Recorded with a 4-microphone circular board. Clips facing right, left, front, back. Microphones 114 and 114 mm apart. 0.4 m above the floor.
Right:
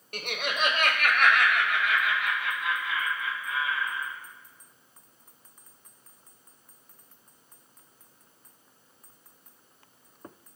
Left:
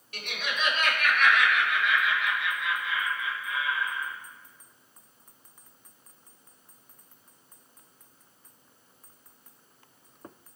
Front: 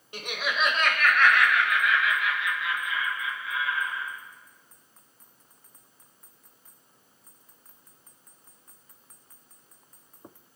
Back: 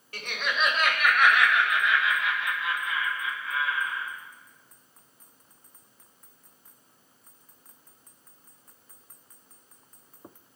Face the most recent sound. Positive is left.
turn(degrees=-140)